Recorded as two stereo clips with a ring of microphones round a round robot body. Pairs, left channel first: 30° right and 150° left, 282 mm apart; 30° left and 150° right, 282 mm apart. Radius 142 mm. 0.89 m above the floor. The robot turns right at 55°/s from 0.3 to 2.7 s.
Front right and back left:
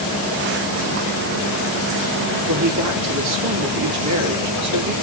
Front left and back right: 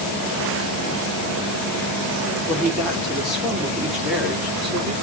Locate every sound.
2.5 s a woman speaking: 110° left, 2.5 m; by 4.9 s 120° left, 2.5 m